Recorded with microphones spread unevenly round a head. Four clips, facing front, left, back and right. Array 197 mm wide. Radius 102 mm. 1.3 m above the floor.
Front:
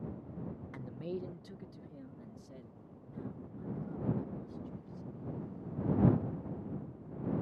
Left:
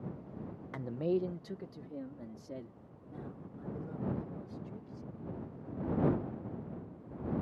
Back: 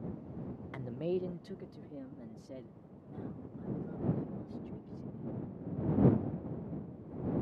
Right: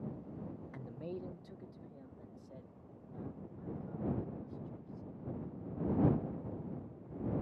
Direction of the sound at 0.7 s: 95° left.